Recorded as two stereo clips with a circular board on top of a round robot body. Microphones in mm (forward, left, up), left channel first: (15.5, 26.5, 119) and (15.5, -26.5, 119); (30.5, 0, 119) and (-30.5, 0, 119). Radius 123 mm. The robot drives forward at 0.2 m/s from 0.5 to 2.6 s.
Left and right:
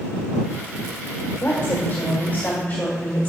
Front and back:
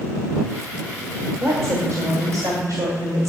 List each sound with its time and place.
1.4 s a woman speaking: 155° left, 1.7 m